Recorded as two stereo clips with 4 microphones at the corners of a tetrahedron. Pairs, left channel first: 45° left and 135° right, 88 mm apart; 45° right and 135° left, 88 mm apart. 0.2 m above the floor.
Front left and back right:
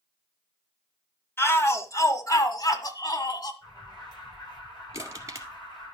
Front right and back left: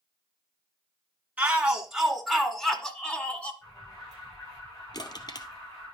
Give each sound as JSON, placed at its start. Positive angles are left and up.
{"t": 1.4, "sound": "a shout", "azimuth_deg": 75, "distance_m": 1.6}
{"t": 3.6, "sound": "an alarm", "azimuth_deg": 5, "distance_m": 8.5}
{"t": 4.9, "sound": "crushing", "azimuth_deg": -85, "distance_m": 2.0}